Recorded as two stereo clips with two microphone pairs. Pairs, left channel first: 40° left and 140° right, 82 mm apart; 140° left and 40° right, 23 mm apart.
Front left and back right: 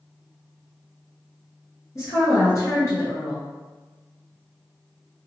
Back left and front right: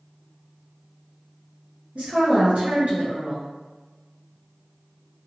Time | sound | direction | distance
1.9 | a woman speaking | 15° right | 0.9 m